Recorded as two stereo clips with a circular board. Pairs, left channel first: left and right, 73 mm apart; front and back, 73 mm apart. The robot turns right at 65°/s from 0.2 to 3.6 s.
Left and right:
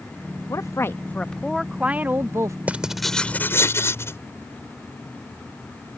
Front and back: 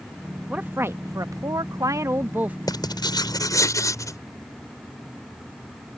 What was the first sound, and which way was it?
A woman speaking, 115° left.